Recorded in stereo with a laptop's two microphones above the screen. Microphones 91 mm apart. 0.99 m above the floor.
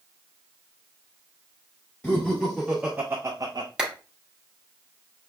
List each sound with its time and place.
2.0 s laughter: 15° left (ahead or behind), 0.9 m; by 3.7 s 50° right (ahead or behind), 0.6 m
3.8 s a clap: 10° right (ahead or behind), 0.9 m